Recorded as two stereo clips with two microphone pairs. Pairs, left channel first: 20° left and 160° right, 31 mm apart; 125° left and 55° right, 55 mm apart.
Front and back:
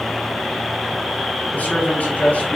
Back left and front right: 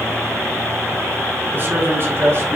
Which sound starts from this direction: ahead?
A man speaking, at 1.5 s.